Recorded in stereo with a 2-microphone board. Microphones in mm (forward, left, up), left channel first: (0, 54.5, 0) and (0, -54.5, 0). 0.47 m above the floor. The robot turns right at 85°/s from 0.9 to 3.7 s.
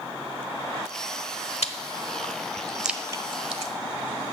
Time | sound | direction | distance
1.6 | chewing | 75° left (ahead or behind) | 1.0 m